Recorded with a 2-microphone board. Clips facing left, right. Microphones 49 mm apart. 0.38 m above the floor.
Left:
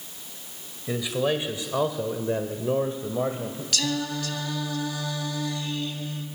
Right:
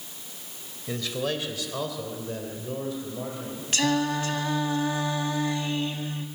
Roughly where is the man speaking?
Centre.